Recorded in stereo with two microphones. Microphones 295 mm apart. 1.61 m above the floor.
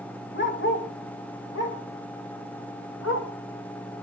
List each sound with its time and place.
0.3 s a dog barking: 40° left (ahead or behind), 1.9 m; by 3.3 s 55° left (ahead or behind), 2.5 m